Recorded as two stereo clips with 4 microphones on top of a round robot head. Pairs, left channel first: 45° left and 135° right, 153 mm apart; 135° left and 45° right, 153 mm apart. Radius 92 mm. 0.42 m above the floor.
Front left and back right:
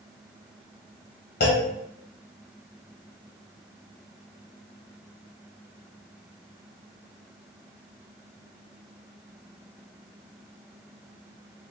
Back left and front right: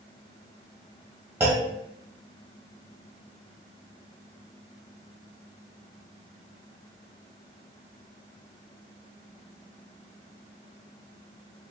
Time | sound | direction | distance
1.4 | a clunk | 30° left | 1.5 m